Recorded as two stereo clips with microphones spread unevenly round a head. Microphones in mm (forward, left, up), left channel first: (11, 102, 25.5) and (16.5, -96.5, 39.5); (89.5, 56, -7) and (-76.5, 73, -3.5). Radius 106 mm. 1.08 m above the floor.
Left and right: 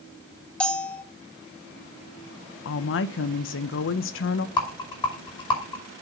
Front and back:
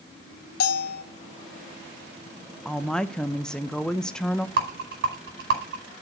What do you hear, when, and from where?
0.6 s a bell: 5° left, 0.8 m
2.6 s a woman speaking: 80° left, 0.6 m
4.6 s a rattle: 160° left, 5 m